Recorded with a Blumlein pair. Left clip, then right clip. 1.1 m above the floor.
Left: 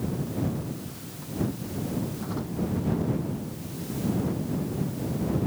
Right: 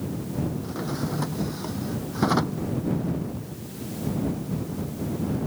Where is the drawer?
35° right.